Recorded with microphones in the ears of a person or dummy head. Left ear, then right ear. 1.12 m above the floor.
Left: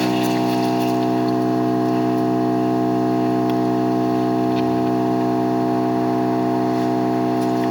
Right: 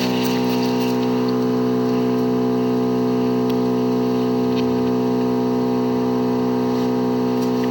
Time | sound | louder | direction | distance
0.0 | an engine running | left 1 dB | 20° left (ahead or behind) | 3 m